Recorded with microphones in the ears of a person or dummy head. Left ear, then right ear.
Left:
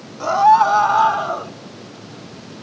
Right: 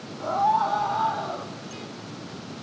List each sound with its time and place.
0.2 s a scream: 65° left (ahead or behind), 1.9 m; by 1.5 s 45° left (ahead or behind), 1.8 m